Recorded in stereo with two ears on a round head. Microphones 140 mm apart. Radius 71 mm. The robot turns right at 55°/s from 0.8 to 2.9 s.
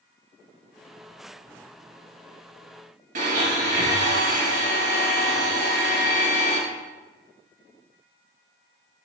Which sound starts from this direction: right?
A blender, at 3.1 s.